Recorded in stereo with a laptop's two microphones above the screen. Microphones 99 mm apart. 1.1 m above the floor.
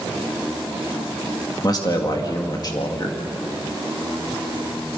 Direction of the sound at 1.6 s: 40° left (ahead or behind).